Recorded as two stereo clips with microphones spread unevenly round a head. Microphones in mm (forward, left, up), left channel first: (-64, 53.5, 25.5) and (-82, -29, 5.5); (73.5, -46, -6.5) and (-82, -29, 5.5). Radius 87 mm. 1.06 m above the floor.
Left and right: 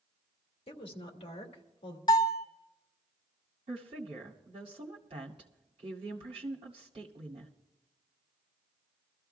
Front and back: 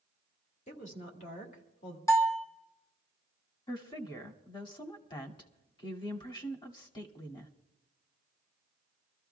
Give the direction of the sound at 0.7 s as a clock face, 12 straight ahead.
10 o'clock.